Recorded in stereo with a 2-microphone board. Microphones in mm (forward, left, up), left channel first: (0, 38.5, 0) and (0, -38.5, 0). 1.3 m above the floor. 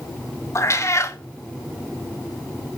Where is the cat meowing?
40° left (ahead or behind), 0.8 m.